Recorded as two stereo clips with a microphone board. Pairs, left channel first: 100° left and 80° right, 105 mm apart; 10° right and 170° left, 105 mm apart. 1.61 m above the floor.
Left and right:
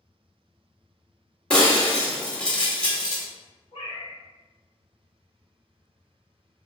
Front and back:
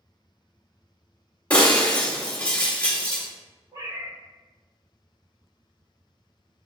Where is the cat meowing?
120° left, 1.8 m.